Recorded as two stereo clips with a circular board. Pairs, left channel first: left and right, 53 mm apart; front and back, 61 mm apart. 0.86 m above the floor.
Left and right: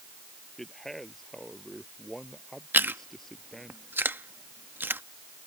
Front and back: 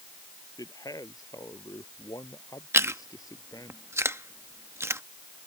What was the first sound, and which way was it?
A man speaking, 5° left.